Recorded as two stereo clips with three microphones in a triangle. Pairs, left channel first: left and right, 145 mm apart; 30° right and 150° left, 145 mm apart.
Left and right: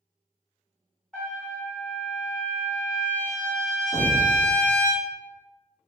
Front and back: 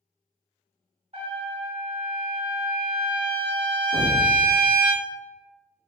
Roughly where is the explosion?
Ahead.